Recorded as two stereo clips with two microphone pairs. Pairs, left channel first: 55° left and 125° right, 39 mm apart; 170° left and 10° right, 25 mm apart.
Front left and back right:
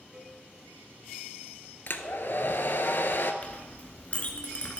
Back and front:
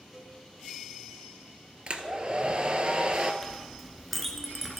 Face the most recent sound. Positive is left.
turn(degrees=85)